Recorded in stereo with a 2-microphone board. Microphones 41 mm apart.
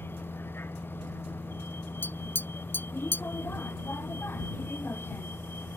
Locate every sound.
0.0 s a vehicle: 65° left (ahead or behind)
2.0 s tapping: 55° left (ahead or behind)